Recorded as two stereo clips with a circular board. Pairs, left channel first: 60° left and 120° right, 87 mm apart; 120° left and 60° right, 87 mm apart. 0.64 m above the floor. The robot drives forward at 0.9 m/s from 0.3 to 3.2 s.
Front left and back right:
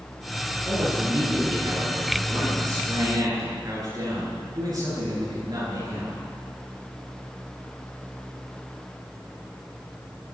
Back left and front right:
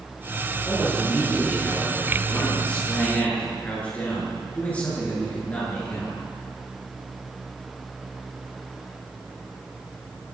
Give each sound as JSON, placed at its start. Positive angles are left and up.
{"t": 0.7, "sound": "a man speaking", "azimuth_deg": -165, "distance_m": 8.5}